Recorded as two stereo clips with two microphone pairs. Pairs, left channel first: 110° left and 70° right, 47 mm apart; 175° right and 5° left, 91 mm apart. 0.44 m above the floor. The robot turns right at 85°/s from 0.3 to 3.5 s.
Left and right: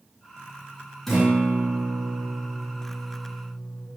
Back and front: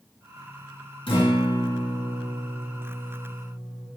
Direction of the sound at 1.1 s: 165° right.